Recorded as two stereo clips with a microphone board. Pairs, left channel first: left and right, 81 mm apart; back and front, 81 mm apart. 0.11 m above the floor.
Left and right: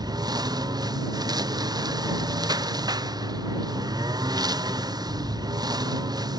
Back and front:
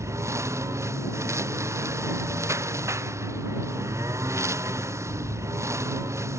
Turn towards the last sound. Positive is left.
turn(degrees=-55)